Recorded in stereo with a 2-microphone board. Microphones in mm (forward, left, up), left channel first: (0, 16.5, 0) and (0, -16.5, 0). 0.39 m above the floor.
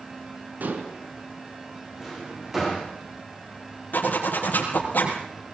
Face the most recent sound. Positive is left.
turn(degrees=70)  # may be behind; listen again after turning